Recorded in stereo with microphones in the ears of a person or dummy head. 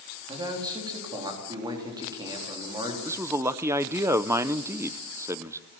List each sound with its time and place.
0.3 s a man speaking: 20° right (ahead or behind), 3.5 m
3.0 s a man speaking: 10° right (ahead or behind), 0.6 m